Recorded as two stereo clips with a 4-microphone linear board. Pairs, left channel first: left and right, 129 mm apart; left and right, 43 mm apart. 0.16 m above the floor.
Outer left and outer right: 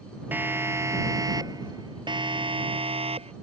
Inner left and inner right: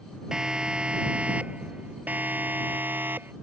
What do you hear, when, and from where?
0.3 s a siren: 15° right (ahead or behind); by 3.3 s 50° right (ahead or behind)